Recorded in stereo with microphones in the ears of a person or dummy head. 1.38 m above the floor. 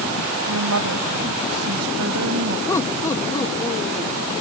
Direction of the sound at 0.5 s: 85° right.